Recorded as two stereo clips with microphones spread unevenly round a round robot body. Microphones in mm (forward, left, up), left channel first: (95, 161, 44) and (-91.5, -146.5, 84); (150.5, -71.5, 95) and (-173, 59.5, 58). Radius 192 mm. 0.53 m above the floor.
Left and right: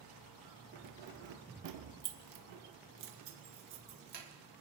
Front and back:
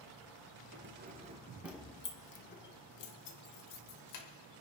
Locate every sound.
0.7 s keys jangling: 155° right, 1.2 m; by 4.3 s 55° right, 1.9 m